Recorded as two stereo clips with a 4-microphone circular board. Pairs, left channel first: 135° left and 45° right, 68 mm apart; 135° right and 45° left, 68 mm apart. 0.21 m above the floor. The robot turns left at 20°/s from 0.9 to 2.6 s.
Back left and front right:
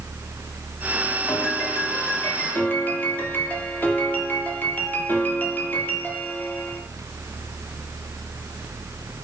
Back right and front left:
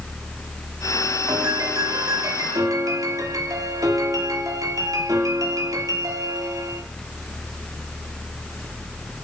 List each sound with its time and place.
1.3 s a piano: 95° left, 3.5 m; by 6.8 s 70° left, 3.5 m